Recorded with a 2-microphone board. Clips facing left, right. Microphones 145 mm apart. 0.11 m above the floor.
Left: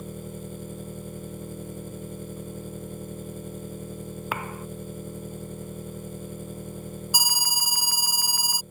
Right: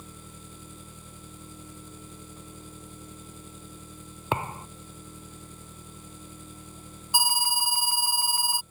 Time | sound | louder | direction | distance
0.0 | an engine running | left 11 dB | 55° left (ahead or behind) | ?
4.3 | a thud | right 4 dB | 25° right (ahead or behind) | ?
7.1 | an alarm | right 6 dB | 25° right (ahead or behind) | ?